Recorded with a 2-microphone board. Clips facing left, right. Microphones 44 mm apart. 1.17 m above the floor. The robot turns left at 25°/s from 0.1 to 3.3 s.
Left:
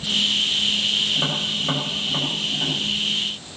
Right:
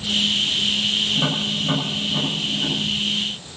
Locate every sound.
1.1 s tapping: 5° left (ahead or behind), 5 m; by 2.8 s 45° left (ahead or behind), 5 m